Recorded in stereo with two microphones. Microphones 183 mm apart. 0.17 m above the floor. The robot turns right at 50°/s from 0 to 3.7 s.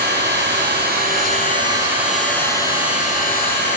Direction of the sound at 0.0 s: 110° right.